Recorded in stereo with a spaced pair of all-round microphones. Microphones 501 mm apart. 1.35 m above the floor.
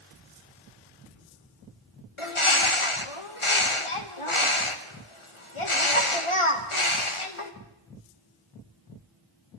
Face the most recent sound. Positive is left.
turn(degrees=75)  # may be behind; listen again after turning